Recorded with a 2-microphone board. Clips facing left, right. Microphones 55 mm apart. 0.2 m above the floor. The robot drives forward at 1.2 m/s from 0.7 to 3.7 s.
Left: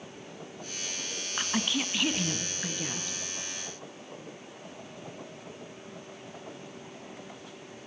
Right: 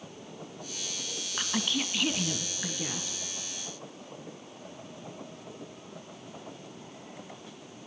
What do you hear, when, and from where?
1.4 s a woman speaking: 10° left (ahead or behind), 1.1 m; by 3.2 s 5° left (ahead or behind), 3 m